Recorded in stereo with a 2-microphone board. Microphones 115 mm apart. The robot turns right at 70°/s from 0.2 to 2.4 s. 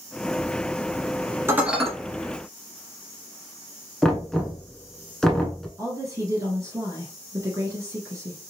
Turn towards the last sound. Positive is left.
turn(degrees=-25)  # may be behind; listen again after turning